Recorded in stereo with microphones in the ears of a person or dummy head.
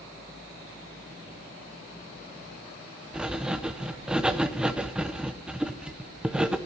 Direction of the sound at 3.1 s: 5° right (ahead or behind).